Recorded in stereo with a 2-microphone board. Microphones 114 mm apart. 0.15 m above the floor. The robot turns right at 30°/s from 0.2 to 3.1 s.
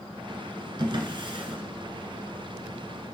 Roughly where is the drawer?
Right.